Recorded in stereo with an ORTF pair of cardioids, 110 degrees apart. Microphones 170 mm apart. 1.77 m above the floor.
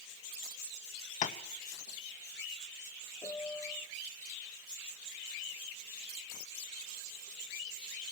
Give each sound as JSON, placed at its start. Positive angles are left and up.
{"t": 1.2, "sound": "tapping", "azimuth_deg": 45, "distance_m": 2.0}
{"t": 3.2, "sound": "a piano", "azimuth_deg": 20, "distance_m": 1.2}